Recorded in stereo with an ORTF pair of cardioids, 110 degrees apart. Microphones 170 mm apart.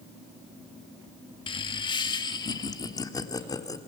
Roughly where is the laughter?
Ahead left.